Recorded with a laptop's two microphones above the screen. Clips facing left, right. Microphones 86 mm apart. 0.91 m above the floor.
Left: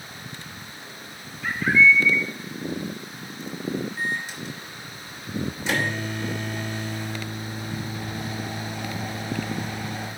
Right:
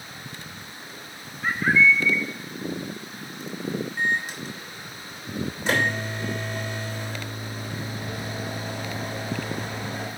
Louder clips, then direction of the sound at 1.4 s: Left 1 dB; 35° right (ahead or behind).